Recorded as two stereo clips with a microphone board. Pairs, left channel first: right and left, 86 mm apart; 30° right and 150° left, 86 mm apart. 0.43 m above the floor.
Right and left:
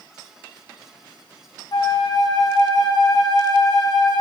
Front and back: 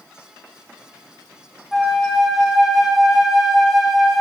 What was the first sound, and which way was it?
A flute, 120° right.